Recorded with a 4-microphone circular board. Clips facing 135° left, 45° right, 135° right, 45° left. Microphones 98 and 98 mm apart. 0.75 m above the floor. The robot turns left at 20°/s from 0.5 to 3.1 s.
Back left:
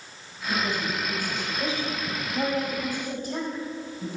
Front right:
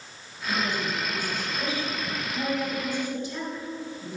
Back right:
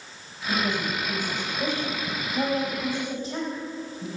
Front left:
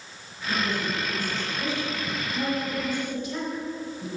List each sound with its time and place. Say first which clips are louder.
0.5 s a woman speaking: even, back right 1 dB; 135° right, 4 m; by 4.1 s 170° left, 4 m